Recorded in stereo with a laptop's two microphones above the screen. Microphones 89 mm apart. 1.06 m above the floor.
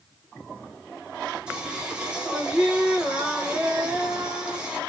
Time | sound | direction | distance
1.5 | singing | 10° right (ahead or behind) | 0.7 m